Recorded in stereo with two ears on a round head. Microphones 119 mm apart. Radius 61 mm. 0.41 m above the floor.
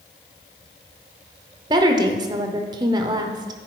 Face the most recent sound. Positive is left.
turn(degrees=-30)  # may be behind; listen again after turning